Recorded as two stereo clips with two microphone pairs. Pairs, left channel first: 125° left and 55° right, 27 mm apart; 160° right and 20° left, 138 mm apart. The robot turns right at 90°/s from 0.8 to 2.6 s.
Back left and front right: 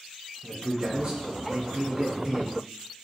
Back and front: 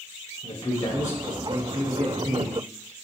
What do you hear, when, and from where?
0.4 s a man speaking: 120° right, 3 m; by 2.5 s 35° left, 3 m